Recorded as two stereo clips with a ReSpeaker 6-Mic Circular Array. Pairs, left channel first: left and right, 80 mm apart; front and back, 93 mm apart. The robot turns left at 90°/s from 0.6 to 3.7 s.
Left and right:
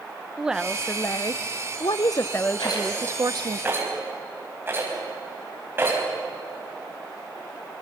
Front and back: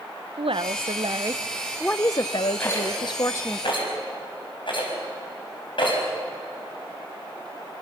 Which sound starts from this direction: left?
A rattle, at 2.6 s.